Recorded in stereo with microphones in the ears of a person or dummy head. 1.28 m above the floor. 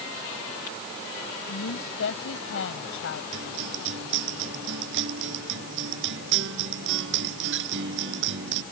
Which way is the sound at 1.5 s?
80° left.